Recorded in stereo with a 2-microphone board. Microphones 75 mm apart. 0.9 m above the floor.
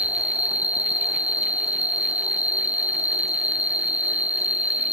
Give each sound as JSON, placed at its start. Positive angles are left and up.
{"t": 0.0, "sound": "an insect", "side_deg": -15, "distance_m": 0.8}